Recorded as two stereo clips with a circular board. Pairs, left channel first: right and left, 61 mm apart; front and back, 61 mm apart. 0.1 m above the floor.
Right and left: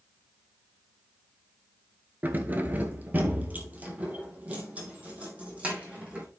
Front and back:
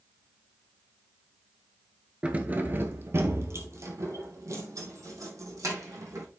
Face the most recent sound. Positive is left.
turn(degrees=160)